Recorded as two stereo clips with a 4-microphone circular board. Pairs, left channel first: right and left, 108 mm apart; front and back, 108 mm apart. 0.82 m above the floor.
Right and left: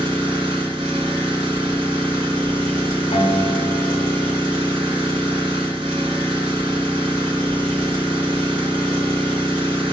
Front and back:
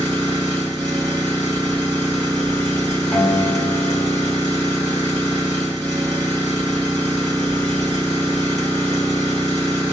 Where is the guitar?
80° right, 0.8 m.